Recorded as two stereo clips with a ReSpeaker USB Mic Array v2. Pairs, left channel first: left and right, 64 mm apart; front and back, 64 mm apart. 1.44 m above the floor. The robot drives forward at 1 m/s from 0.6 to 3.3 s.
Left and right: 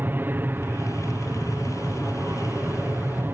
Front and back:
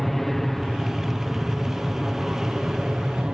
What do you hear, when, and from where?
0.0 s an aircraft: 85° right; by 3.3 s 110° right